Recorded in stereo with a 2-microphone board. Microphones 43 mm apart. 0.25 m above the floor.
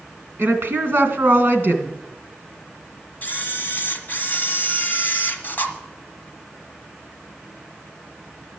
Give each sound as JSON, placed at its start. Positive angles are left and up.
{"t": 0.4, "sound": "a woman speaking", "side_deg": -55, "distance_m": 2.5}
{"t": 3.2, "sound": "a camera shutter", "side_deg": 45, "distance_m": 1.5}